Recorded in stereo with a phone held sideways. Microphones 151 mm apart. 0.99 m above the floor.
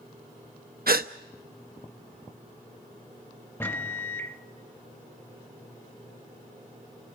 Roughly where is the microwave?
Centre.